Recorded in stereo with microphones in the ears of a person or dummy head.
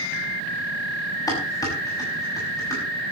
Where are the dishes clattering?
20° left (ahead or behind), 6 m.